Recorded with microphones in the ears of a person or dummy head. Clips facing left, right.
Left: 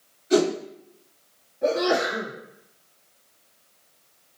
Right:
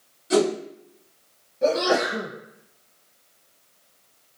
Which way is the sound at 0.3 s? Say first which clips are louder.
Even; 50° right (ahead or behind).